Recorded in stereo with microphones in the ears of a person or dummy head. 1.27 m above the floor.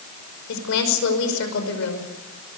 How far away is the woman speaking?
About 5.5 m.